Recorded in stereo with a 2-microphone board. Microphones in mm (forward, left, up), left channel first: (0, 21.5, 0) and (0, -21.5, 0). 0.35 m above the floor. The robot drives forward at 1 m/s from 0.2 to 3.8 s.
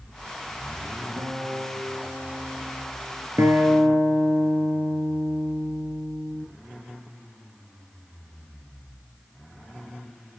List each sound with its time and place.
1.2 s a guitar: 60° right (ahead or behind), 3 m; by 3.3 s 40° right (ahead or behind), 4.5 m
3.4 s a guitar: 80° right, 3 m; by 6.5 s 75° right (ahead or behind), 3 m